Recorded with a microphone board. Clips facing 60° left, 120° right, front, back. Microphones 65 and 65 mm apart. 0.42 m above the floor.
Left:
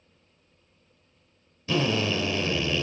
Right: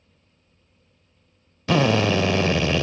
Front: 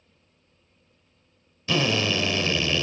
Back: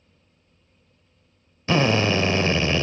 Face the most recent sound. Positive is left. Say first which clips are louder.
# right 6 dB, back 4 dB
turn(degrees=-125)